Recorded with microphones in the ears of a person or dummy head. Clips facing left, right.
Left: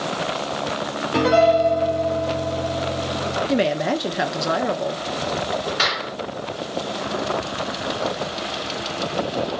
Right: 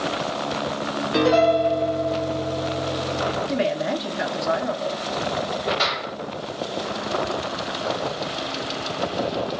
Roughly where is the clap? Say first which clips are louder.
Even; left.